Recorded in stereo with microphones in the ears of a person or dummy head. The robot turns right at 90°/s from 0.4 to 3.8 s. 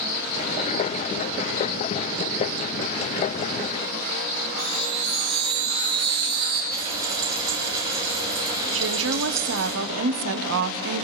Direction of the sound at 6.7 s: 20° right (ahead or behind).